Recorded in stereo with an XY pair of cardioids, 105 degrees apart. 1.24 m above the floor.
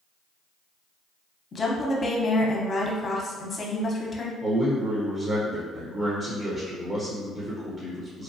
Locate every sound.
1.5 s a woman speaking: 35° left, 0.7 m
4.4 s a man speaking: 25° right, 0.8 m